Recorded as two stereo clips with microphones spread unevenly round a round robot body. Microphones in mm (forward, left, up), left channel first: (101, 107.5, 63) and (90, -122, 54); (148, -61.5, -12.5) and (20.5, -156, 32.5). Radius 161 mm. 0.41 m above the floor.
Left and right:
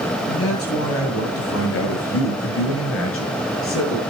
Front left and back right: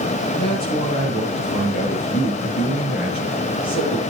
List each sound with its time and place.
0.3 s a man speaking: 80° left, 8 m; by 4.0 s 70° left, 6 m